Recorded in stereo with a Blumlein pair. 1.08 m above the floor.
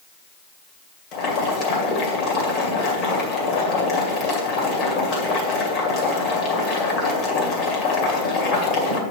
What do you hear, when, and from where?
1.1 s boiling: 35° left, 2 m